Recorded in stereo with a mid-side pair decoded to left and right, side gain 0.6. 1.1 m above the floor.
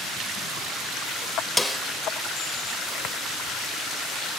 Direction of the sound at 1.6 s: 5° left.